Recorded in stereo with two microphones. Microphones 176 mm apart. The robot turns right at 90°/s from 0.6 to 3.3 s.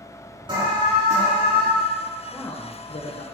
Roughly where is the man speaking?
Ahead.